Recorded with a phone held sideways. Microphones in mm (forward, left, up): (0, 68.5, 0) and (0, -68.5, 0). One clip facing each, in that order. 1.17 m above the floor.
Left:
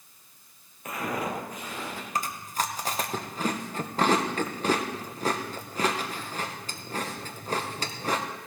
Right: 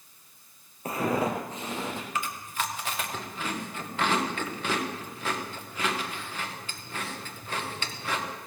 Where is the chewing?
40° left (ahead or behind), 1.0 m.